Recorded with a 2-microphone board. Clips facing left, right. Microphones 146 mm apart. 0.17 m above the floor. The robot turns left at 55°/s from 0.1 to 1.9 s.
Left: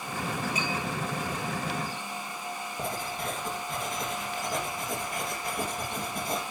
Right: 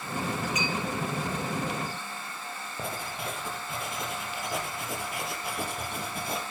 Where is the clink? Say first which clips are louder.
Even; 35° left (ahead or behind), 8.5 m; by 0.7 s 25° left (ahead or behind), 8.5 m.